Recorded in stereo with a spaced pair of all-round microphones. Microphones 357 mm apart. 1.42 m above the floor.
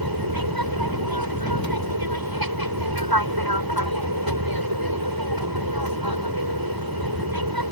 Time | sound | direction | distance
0.0 | an aircraft | 75° right (ahead or behind) | ?